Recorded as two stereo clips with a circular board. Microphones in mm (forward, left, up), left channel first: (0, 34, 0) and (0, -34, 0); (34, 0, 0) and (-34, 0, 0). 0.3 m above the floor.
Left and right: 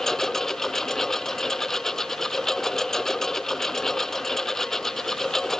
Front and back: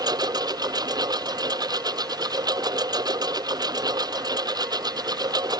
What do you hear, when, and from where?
0.0 s a lawn mower: 175° left